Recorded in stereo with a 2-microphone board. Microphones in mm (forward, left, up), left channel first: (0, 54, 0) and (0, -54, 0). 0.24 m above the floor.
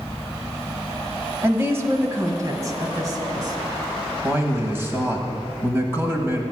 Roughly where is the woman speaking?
Right.